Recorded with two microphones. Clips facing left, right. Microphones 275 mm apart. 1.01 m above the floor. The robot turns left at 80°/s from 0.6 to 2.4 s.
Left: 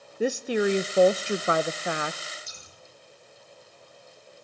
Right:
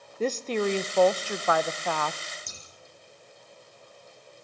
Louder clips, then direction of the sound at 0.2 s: Left 2 dB; 10° left (ahead or behind).